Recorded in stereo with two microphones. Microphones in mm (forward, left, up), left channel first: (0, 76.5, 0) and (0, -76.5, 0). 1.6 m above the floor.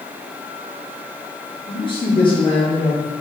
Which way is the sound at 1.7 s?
35° left (ahead or behind).